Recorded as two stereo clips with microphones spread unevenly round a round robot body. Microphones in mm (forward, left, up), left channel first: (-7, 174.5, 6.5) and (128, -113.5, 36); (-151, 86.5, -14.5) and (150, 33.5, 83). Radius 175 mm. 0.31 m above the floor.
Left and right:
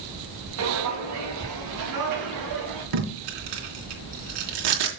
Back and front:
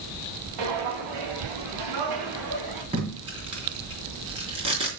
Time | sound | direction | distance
0.6 | footsteps | 20° right | 4 m
2.9 | tape being pulled | 90° right | 3 m